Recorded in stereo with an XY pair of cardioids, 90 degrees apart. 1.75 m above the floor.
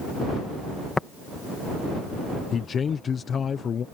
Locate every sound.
1.0 s tapping: 25° left
2.5 s a man speaking: 55° left